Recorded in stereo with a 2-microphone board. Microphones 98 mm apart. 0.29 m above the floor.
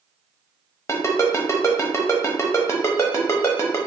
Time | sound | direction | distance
0.9 | a ringtone | 30° left (ahead or behind) | 0.9 m